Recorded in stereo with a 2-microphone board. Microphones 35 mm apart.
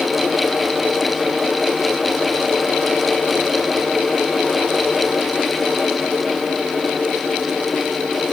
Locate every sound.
Only background noise.